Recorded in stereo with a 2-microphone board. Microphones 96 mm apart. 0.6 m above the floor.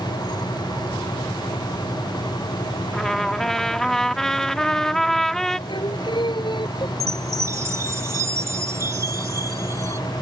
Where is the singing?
55° left (ahead or behind).